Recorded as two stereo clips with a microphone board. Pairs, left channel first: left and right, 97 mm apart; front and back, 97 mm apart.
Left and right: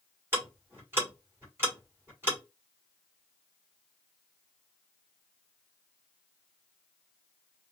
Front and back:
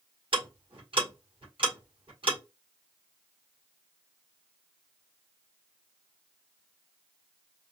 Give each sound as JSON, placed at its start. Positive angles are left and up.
{"t": 0.3, "sound": "ticking", "azimuth_deg": -155, "distance_m": 3.5}